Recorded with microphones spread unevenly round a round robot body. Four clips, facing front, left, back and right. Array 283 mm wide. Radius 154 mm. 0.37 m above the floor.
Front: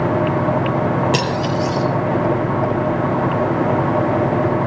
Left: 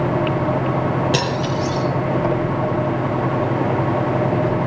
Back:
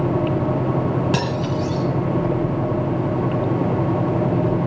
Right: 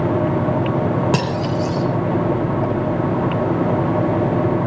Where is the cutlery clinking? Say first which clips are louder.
Right 1 dB, front 3 dB; 105° right, 2 m.